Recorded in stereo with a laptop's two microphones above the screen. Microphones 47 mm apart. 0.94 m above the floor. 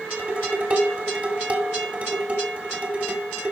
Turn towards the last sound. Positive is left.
turn(degrees=-35)  # may be behind; listen again after turning